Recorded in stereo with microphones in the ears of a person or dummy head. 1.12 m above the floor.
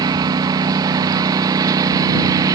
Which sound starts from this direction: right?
A lawn mower, at 0.0 s.